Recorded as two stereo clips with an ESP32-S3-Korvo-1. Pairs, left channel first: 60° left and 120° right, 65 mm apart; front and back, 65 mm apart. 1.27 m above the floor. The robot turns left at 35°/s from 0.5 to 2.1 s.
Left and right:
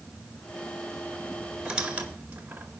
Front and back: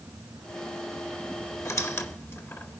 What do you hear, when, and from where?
1.6 s a squeak: 40° right, 1.5 m; by 2.8 s 55° right, 1.5 m